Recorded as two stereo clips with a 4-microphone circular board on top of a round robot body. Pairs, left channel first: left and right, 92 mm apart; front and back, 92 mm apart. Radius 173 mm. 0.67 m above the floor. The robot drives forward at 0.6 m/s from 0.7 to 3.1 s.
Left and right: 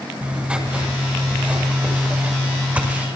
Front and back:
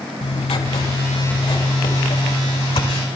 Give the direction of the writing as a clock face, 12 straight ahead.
12 o'clock.